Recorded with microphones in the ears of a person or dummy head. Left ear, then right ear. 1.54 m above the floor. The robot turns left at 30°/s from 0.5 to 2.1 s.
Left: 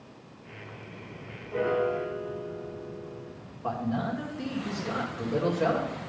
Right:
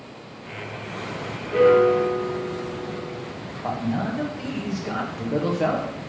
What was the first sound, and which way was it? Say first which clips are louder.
A piano: right 11 dB; 50° right (ahead or behind).